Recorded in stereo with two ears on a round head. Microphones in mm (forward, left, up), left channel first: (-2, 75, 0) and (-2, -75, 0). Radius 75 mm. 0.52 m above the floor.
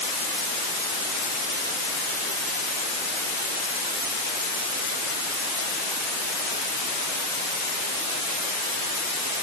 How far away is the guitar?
I don't hear a guitar.